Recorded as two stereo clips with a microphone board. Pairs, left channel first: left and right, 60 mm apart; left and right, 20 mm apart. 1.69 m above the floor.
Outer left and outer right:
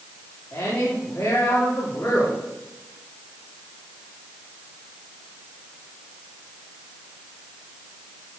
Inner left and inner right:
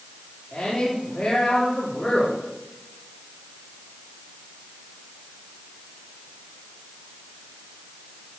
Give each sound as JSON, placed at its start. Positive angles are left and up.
{"t": 0.5, "sound": "a woman speaking", "side_deg": 55, "distance_m": 4.5}